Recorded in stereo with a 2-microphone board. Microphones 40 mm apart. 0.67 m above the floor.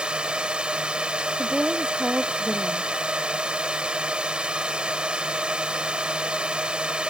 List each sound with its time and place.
0.0 s a drone: 25° right (ahead or behind)
1.4 s a woman speaking: 25° right (ahead or behind)